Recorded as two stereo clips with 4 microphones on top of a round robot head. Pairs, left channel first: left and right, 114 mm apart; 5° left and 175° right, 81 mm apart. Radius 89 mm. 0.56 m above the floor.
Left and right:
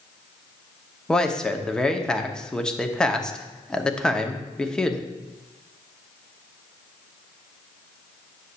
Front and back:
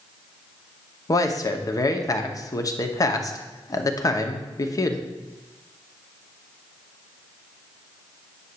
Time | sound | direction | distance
1.1 | a man speaking | 10° left | 1.0 m